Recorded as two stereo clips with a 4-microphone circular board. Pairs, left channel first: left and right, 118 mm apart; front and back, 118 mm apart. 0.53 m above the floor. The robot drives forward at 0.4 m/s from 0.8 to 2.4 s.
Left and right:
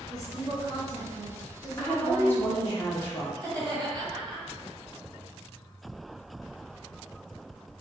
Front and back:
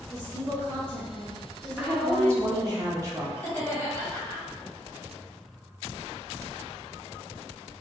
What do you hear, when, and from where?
0.1 s a woman speaking: 60° right, 1.5 m; by 2.8 s 105° right, 1.4 m
1.8 s a woman speaking: 120° left, 0.9 m; by 3.3 s 145° left, 1.0 m
3.4 s laughter: 60° right, 1.4 m